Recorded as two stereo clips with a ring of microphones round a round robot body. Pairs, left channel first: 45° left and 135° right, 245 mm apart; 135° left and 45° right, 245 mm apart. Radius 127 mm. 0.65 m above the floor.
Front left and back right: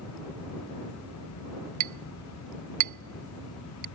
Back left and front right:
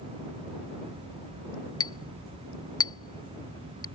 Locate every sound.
1.8 s a clink: 150° right